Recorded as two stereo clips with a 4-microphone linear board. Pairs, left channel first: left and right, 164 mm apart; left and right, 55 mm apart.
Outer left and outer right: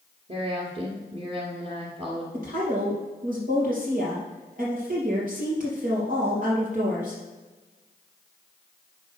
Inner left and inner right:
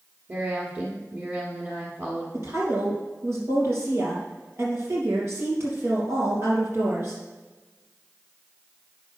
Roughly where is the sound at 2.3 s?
Right.